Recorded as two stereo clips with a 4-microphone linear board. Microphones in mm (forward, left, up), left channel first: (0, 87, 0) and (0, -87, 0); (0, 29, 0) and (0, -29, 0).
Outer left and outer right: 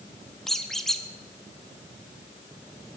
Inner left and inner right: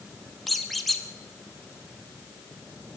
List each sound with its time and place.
0.5 s a squeak: centre (ahead or behind), 1.2 m